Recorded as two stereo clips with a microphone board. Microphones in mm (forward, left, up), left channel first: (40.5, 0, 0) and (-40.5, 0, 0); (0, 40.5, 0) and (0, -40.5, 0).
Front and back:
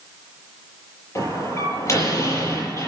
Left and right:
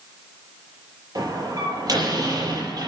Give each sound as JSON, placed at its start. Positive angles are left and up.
{"t": 1.1, "sound": "a door slam", "azimuth_deg": -50, "distance_m": 8.5}